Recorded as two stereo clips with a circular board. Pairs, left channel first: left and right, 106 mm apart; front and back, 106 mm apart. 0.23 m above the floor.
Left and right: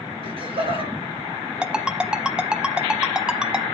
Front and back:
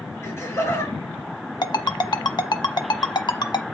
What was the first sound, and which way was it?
Laughter, 65° right.